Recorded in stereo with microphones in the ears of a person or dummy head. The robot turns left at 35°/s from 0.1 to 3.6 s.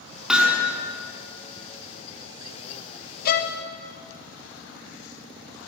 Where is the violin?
45° left (ahead or behind), 1.1 m; by 3.6 s 55° left (ahead or behind), 1.1 m.